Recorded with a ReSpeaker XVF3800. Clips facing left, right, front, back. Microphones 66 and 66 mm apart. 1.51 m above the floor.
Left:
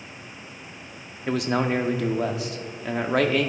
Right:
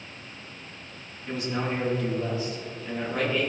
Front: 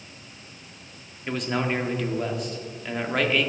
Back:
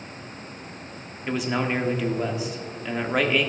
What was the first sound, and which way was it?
A man speaking, 95° left.